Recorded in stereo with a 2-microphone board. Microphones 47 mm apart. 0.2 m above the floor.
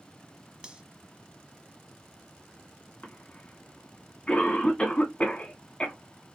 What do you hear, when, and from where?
0.6 s cutlery clinking: 20° right (ahead or behind), 0.7 m
3.0 s a cough: 20° left (ahead or behind), 1.7 m